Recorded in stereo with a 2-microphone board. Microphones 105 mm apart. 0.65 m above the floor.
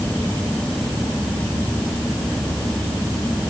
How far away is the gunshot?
No gunshot in this recording.